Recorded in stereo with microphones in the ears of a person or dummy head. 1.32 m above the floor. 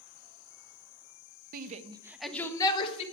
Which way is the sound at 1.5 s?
55° right (ahead or behind).